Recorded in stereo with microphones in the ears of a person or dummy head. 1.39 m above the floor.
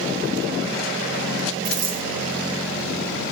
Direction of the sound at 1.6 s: 55° right (ahead or behind).